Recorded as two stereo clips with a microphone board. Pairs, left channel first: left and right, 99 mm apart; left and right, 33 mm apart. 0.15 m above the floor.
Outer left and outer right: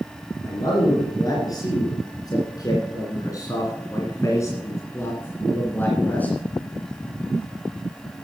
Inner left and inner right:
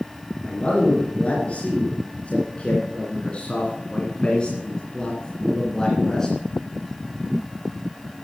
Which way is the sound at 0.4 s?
40° left (ahead or behind).